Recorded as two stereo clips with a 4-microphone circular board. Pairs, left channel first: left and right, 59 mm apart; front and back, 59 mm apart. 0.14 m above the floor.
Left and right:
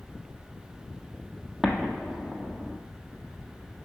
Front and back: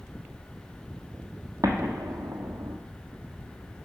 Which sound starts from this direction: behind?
An explosion, at 1.6 s.